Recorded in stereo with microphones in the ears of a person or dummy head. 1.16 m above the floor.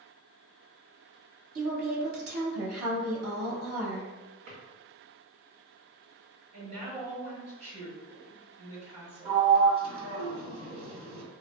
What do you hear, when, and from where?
1.6 s a woman speaking: 55° right (ahead or behind), 0.6 m
4.5 s a drawer: 40° right (ahead or behind), 0.8 m
6.5 s a woman speaking: 30° right (ahead or behind), 1.0 m
9.2 s a sliding door: 35° right (ahead or behind), 0.7 m